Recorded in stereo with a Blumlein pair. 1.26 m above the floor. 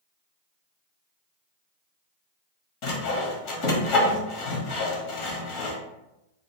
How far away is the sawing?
About 0.8 m.